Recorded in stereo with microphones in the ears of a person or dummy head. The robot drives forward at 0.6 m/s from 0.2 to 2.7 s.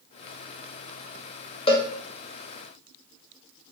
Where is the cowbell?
30° left (ahead or behind), 0.6 m; by 1.9 s 25° left (ahead or behind), 0.7 m.